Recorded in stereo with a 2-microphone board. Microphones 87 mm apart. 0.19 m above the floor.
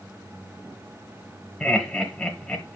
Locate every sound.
1.6 s laughter: 10° left (ahead or behind), 1.2 m